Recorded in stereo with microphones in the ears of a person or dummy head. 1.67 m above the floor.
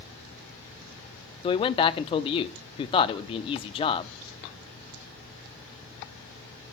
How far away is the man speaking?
About 0.8 m.